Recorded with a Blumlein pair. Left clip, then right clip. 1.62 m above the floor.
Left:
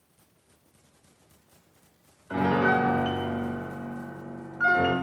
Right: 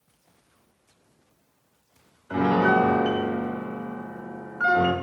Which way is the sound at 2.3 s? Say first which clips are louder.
Right 3 dB; 5° right.